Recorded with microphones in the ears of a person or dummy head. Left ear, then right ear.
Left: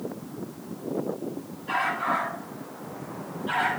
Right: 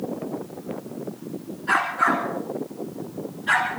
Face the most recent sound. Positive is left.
turn(degrees=-65)  # may be behind; listen again after turning